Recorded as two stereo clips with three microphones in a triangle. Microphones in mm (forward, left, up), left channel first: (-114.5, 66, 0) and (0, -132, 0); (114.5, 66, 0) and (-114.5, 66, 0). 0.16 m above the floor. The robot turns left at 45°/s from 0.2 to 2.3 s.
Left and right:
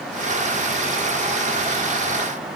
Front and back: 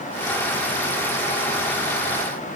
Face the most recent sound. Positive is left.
No sound to turn to.